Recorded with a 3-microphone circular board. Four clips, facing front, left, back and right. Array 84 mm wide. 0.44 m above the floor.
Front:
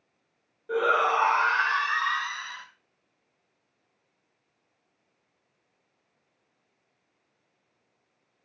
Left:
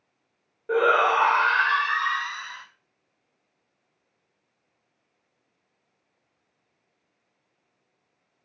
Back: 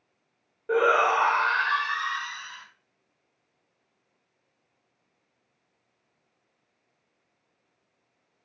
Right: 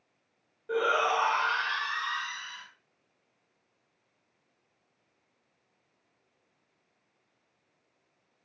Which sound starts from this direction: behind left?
A shout, at 0.7 s.